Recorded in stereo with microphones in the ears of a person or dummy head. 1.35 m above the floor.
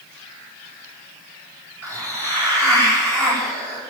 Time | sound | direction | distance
1.8 | a hiss | 15° left (ahead or behind) | 10 m